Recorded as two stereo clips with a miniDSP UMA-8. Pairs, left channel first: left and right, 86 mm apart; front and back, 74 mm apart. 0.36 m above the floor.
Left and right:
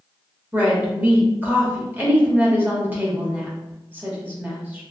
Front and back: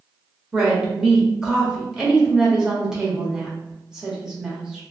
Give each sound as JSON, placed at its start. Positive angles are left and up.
{"t": 0.5, "sound": "a woman speaking", "azimuth_deg": -110, "distance_m": 0.8}